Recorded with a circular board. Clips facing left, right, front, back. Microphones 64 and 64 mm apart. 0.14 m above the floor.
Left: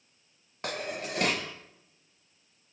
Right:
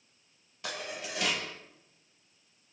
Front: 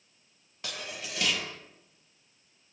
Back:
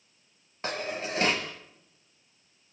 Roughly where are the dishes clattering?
Behind left.